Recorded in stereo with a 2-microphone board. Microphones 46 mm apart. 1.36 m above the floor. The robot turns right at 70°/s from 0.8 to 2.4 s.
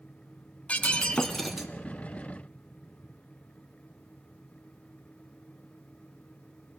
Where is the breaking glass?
135° left, 1.6 m; by 1.7 s 165° right, 1.6 m.